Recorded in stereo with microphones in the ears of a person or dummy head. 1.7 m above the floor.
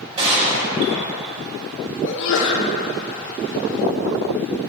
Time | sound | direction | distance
0.2 | a gunshot | 30° right (ahead or behind) | 2.5 m
2.0 | a sneeze | 70° left (ahead or behind) | 1.4 m